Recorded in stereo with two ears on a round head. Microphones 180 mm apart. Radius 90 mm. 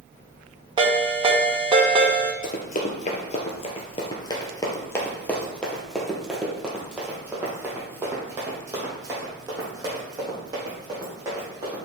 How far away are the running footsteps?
About 2 m.